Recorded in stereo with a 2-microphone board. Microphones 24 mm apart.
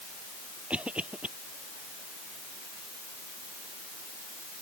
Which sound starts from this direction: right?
A cough, at 0.7 s.